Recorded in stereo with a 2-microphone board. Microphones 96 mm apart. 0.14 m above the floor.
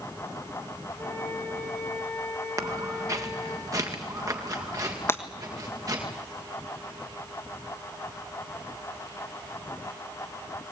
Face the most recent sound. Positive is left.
turn(degrees=25)  # may be behind; listen again after turning